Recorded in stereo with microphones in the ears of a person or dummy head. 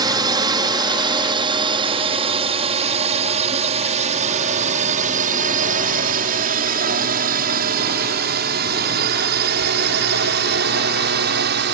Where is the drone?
20° right (ahead or behind); by 11.7 s 55° right (ahead or behind).